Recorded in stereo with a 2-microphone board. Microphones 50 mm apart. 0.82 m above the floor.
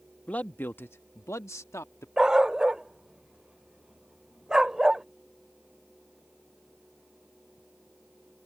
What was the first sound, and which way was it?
A man speaking, 25° left (ahead or behind).